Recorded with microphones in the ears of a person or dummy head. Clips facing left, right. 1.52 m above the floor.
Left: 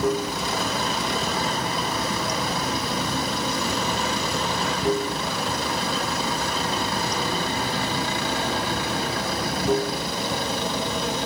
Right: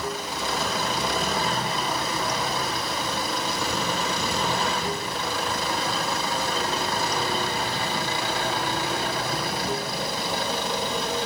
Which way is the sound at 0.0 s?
70° left (ahead or behind).